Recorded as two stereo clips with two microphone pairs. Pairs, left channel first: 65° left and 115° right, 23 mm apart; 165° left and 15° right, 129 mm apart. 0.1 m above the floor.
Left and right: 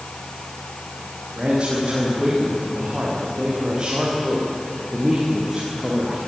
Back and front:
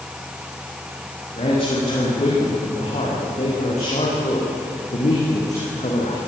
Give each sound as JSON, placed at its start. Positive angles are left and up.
{"t": 1.3, "sound": "a man speaking", "azimuth_deg": -160, "distance_m": 10.0}